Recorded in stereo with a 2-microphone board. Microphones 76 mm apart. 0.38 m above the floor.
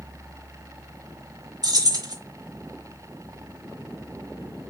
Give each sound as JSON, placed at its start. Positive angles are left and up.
{"t": 1.6, "sound": "keys jangling", "side_deg": -60, "distance_m": 1.0}